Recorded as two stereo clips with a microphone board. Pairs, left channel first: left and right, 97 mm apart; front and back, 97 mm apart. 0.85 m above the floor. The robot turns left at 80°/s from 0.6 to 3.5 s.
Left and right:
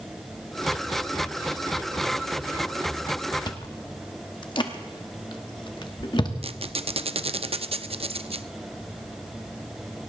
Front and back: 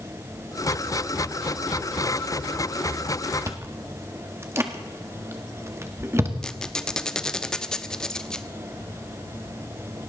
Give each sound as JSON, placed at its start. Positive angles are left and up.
{"t": 3.5, "sound": "chewing", "azimuth_deg": 125, "distance_m": 1.5}
{"t": 6.4, "sound": "a squeak", "azimuth_deg": -85, "distance_m": 0.6}